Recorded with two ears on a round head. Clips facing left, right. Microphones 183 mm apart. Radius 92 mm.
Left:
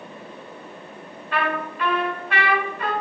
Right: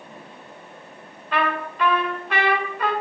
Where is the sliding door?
No sliding door in this recording.